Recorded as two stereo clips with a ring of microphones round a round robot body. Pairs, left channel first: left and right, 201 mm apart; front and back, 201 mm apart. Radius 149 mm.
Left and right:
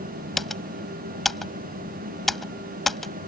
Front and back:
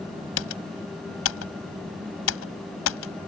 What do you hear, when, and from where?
0.4 s typing on a keyboard: straight ahead